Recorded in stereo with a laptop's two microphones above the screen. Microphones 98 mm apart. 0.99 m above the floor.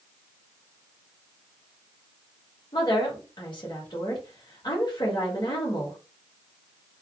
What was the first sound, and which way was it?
A woman speaking, 50° left (ahead or behind).